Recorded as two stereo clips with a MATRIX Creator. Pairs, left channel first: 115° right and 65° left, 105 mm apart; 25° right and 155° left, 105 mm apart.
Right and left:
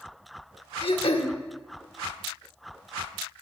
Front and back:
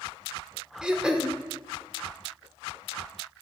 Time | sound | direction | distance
0.8 | throat clearing | 120° right | 0.7 m